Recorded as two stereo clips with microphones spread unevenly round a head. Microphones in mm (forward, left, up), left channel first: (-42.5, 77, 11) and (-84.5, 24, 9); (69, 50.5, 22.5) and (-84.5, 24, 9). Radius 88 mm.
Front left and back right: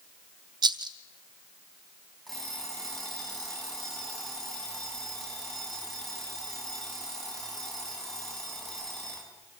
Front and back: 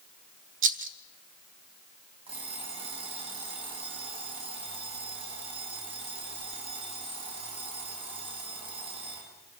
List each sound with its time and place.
0.6 s a rattle: 120° right, 0.7 m
2.3 s an alarm clock: 135° left, 8 m